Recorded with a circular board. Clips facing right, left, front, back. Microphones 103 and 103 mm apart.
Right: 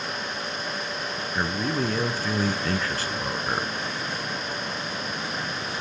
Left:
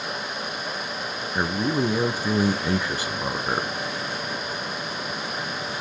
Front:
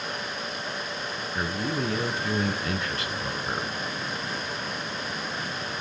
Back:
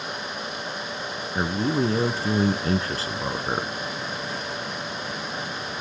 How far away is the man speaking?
About 1.6 m.